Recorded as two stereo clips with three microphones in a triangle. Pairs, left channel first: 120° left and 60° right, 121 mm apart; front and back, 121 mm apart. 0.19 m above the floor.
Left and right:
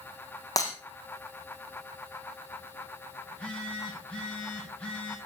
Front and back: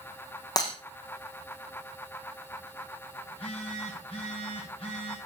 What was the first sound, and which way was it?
Breaking glass, 60° left.